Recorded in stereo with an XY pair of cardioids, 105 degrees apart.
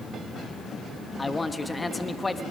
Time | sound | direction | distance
1.2 | a man speaking | 20° left | 1.1 m